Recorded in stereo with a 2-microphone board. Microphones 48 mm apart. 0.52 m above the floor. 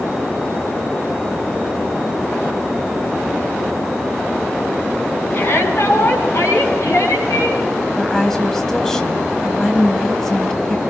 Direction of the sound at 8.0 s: 10° left (ahead or behind).